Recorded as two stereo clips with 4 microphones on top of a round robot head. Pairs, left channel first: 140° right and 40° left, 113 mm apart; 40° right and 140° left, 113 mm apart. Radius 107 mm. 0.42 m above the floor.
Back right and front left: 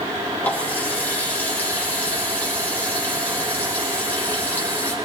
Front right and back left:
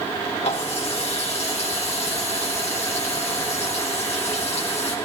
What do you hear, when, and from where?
0.4 s a running tap: 65° right, 3 m